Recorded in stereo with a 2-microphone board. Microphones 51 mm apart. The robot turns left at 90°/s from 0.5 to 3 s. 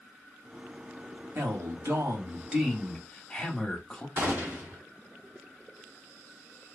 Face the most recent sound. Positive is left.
turn(degrees=-45)  # may be behind; listen again after turning